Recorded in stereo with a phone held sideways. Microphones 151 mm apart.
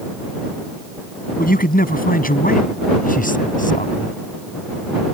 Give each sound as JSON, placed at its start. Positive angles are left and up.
{"t": 1.4, "sound": "a man speaking", "side_deg": 75}